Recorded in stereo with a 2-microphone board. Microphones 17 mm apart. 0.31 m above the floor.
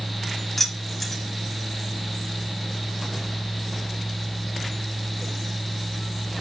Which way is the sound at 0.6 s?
15° left (ahead or behind).